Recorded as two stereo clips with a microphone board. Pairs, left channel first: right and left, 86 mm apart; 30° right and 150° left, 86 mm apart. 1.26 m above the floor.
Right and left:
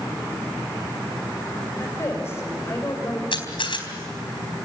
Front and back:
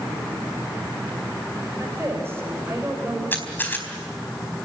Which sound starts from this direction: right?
A camera shutter, at 3.3 s.